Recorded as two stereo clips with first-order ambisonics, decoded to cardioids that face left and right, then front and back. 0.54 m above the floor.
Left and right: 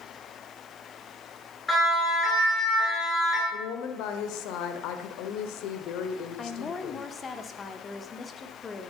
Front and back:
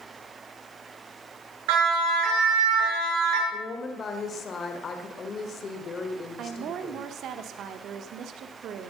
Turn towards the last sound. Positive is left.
turn(degrees=155)